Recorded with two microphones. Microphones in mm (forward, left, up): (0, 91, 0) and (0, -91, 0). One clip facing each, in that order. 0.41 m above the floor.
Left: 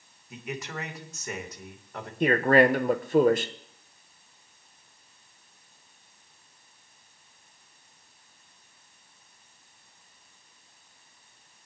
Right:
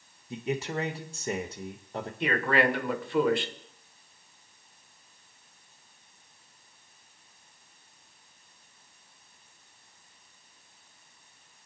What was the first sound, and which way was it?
A man speaking, 30° right (ahead or behind).